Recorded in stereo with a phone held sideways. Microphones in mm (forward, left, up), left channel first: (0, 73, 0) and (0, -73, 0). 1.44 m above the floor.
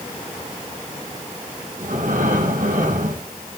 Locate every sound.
1.8 s breathing: 65° right (ahead or behind), 2 m